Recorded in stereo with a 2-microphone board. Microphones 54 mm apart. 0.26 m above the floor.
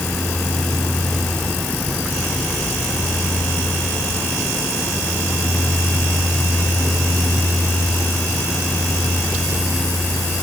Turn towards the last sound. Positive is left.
No sound to turn to.